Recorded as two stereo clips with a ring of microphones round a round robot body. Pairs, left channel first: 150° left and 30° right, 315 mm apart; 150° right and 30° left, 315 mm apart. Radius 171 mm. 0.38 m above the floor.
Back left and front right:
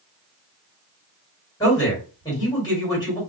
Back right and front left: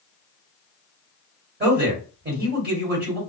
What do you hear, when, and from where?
1.6 s a man speaking: 75° left, 1.8 m